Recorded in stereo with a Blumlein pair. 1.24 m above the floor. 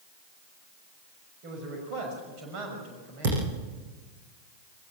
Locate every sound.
1.4 s a man speaking: 40° right, 6 m
3.2 s a thud: 55° right, 9.5 m